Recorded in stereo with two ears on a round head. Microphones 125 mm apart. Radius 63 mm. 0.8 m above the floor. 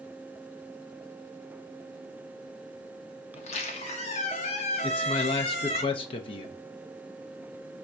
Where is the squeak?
50° left (ahead or behind), 0.7 m.